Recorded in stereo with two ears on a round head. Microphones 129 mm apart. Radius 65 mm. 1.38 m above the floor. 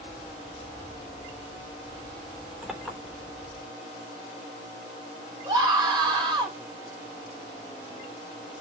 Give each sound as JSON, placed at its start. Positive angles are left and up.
{"t": 2.6, "sound": "a clink", "side_deg": -10, "distance_m": 3.5}
{"t": 5.5, "sound": "a scream", "side_deg": -30, "distance_m": 4.0}